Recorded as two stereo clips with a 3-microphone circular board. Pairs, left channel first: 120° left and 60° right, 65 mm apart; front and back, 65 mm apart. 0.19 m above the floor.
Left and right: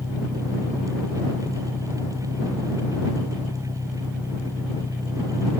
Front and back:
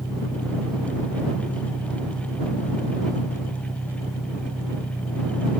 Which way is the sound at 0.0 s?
80° left.